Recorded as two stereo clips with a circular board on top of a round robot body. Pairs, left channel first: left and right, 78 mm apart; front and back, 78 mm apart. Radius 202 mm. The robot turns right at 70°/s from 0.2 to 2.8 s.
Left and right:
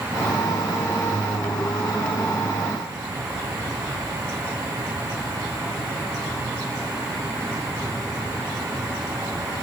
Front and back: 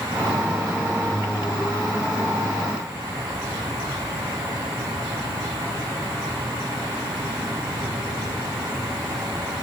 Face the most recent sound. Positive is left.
No sound to turn to.